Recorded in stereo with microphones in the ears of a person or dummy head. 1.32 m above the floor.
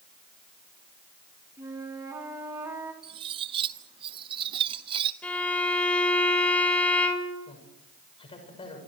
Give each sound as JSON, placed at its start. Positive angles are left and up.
{"t": 1.6, "sound": "a flute", "side_deg": -15, "distance_m": 3.5}
{"t": 3.0, "sound": "cutlery clinking", "side_deg": -30, "distance_m": 0.7}
{"t": 5.2, "sound": "a violin", "side_deg": 10, "distance_m": 3.5}
{"t": 7.5, "sound": "a man speaking", "side_deg": 25, "distance_m": 6.0}